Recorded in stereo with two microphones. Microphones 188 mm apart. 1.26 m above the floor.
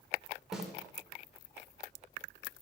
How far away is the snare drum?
About 2.5 m.